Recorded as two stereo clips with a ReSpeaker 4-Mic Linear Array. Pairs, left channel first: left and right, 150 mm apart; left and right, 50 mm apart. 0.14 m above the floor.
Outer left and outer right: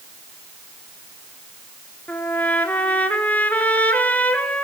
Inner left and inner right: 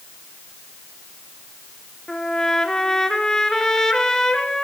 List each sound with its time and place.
2.1 s a trumpet: 10° left (ahead or behind), 1.9 m